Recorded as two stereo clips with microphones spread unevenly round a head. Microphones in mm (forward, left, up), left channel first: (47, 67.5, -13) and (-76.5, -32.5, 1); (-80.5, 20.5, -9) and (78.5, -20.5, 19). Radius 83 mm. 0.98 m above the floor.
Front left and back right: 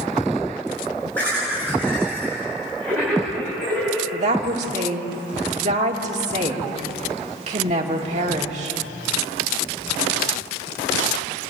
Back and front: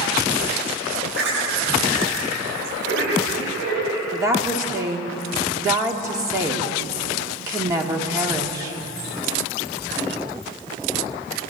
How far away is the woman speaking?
About 2.5 m.